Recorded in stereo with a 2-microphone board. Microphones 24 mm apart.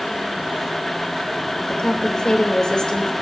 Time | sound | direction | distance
1.7 | a woman speaking | 35° left (ahead or behind) | 3.5 m